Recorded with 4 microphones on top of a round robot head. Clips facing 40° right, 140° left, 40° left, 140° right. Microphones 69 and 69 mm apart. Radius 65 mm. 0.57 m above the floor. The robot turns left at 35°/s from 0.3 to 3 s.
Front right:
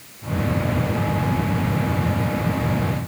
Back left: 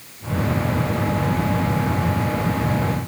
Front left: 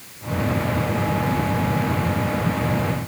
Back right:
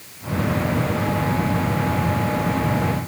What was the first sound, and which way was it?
Only background noise.